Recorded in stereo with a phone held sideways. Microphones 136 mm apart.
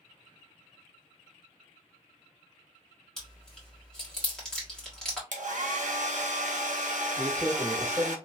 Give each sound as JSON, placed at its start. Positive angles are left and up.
{"t": 3.2, "sound": "chewing", "side_deg": 5, "distance_m": 1.5}
{"t": 5.3, "sound": "a hair dryer", "side_deg": -65, "distance_m": 0.7}
{"t": 7.2, "sound": "a man speaking", "side_deg": -15, "distance_m": 1.6}